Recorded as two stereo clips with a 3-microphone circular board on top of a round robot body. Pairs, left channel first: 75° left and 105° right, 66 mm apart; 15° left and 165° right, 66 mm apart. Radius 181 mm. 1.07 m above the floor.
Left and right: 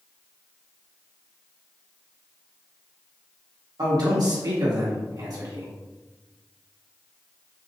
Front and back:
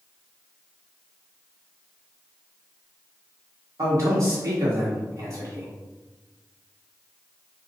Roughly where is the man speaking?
Behind right.